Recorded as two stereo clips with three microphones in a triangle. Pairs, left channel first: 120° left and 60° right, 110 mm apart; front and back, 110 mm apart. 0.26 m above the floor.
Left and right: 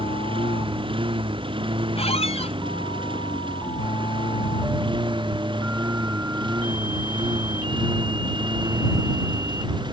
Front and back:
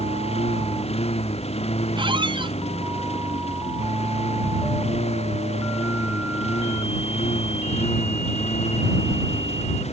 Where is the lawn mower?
25° right; by 9.9 s 15° right.